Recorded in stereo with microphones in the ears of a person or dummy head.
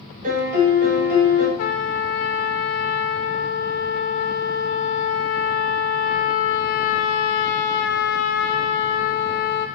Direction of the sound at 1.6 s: 50° left (ahead or behind).